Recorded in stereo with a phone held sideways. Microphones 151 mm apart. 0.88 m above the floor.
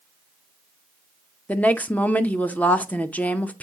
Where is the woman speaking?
10° left (ahead or behind), 0.7 m.